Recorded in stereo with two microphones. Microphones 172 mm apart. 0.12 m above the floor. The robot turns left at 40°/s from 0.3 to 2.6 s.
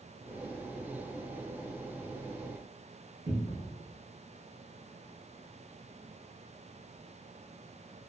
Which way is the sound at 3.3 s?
25° right (ahead or behind).